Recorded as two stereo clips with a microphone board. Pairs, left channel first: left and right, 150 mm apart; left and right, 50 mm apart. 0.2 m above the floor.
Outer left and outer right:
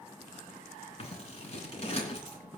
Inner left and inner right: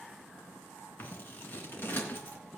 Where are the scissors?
45° left (ahead or behind), 3 m.